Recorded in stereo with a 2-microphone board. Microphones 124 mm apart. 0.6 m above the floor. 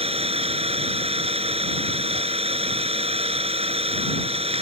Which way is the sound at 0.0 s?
50° right (ahead or behind).